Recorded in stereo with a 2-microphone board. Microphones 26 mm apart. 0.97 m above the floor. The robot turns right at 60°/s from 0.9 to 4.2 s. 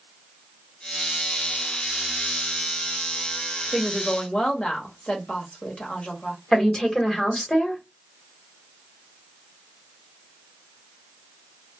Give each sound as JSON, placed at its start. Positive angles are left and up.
{"t": 3.7, "sound": "a woman speaking", "side_deg": 30, "distance_m": 1.1}
{"t": 6.5, "sound": "a woman speaking", "side_deg": 25, "distance_m": 1.1}